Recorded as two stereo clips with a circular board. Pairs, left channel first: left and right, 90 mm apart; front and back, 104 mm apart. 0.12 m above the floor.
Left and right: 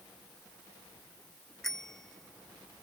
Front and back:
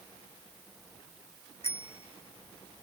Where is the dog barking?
I don't hear a dog barking.